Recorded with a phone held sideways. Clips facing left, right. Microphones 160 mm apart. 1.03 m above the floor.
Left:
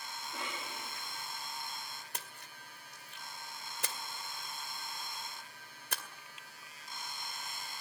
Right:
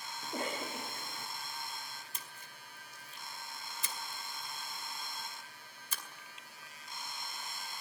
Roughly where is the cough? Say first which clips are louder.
Right 6 dB; right.